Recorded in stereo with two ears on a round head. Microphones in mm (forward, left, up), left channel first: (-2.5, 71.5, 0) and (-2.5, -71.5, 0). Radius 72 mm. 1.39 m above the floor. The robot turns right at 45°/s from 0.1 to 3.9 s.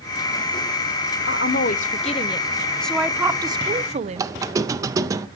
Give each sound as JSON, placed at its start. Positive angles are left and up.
{"t": 1.3, "sound": "a woman speaking", "azimuth_deg": 105, "distance_m": 0.7}
{"t": 4.2, "sound": "a squeak", "side_deg": -20, "distance_m": 0.6}